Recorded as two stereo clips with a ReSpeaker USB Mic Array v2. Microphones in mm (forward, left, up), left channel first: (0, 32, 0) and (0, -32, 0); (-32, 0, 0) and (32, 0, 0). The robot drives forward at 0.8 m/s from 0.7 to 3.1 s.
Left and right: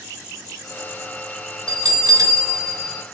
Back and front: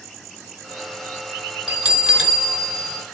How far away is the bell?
About 3 m.